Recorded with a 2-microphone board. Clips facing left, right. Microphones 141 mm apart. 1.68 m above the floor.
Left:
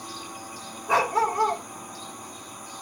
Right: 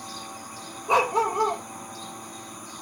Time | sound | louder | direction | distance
0.9 | a dog barking | right 1 dB | 25° right (ahead or behind) | 2.5 m